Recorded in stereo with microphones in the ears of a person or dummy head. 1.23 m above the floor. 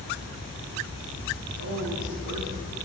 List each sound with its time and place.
1.6 s a woman speaking: 75° right (ahead or behind), 3 m